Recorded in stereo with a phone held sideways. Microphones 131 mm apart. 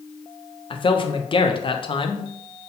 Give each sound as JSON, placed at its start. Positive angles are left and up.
{"t": 0.7, "sound": "a man speaking", "side_deg": 40, "distance_m": 0.5}